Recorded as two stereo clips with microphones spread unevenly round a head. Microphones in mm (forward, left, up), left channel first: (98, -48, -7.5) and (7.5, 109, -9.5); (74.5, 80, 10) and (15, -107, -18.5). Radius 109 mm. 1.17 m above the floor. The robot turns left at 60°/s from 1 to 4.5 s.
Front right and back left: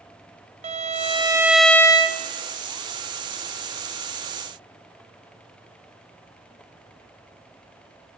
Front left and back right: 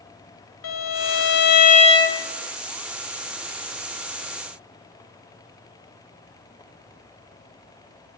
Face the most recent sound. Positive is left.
turn(degrees=-145)